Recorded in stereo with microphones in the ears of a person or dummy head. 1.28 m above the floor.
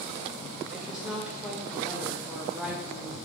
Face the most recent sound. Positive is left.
turn(degrees=-5)  # may be behind; listen again after turning